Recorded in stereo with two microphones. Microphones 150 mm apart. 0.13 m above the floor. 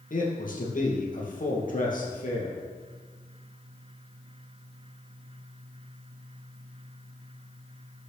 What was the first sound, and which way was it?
A man speaking, 65° left (ahead or behind).